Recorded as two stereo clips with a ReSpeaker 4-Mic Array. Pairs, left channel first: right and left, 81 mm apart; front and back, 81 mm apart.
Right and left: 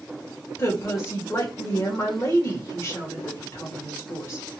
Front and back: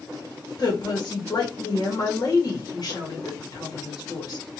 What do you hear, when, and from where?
0.6 s a woman speaking: 35° right, 1.1 m